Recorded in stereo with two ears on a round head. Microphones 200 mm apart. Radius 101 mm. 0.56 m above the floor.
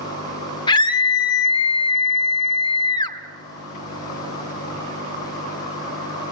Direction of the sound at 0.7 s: 25° left (ahead or behind).